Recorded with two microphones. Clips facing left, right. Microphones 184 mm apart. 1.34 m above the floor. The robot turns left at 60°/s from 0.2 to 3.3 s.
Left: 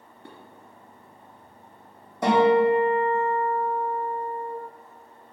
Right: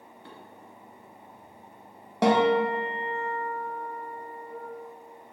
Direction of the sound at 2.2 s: 70° right.